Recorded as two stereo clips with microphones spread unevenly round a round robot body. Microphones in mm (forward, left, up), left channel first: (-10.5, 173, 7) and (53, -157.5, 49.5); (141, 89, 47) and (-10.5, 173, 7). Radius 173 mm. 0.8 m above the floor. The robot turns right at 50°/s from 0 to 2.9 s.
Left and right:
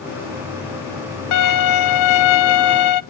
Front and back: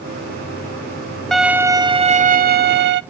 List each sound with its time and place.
1.3 s a violin: 55° left, 0.8 m; by 3.0 s 135° left, 0.8 m